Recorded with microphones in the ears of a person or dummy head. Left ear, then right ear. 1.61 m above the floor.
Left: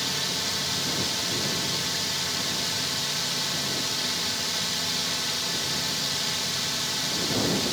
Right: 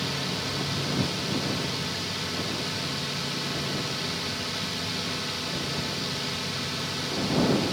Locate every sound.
0.0 s a drone: 25° left (ahead or behind)